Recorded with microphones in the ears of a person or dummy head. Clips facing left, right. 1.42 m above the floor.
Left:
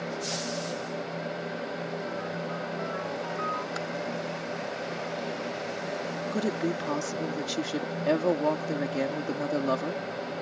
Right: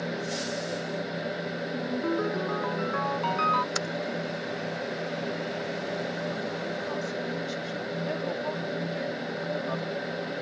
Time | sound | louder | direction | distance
1.7 | a ringtone | right 6 dB | 80° right | ?
3.8 | typing on a keyboard | right 2 dB | 60° right (ahead or behind) | ?
6.3 | a woman speaking | left 4 dB | 75° left (ahead or behind) | ?